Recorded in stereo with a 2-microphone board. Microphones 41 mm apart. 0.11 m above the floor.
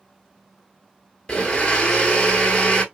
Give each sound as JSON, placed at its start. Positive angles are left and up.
{"t": 1.3, "sound": "a blender", "side_deg": 20, "distance_m": 0.8}